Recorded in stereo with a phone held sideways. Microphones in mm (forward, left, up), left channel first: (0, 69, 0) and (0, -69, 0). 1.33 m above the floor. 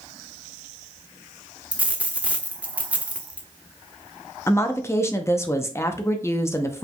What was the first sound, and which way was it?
A dropped coin, 10° right (ahead or behind).